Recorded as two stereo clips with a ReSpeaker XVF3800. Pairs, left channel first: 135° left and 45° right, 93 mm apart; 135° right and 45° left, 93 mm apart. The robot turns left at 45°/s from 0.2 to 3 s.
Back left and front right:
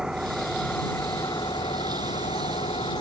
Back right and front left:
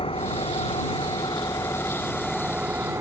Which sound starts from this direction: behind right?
An engine running, at 0.0 s.